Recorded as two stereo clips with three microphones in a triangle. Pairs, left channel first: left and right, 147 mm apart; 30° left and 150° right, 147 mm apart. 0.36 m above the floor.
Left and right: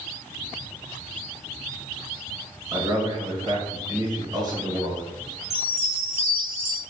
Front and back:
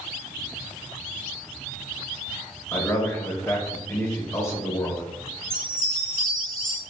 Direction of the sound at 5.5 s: 165° right.